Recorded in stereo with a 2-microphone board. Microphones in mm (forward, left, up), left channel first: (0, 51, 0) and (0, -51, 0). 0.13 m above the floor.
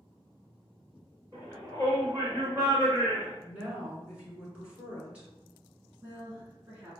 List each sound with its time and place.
1.3 s a shout: 30° right (ahead or behind), 1.9 m
3.4 s a woman speaking: 10° right (ahead or behind), 1.3 m
6.0 s a woman speaking: 30° right (ahead or behind), 1.1 m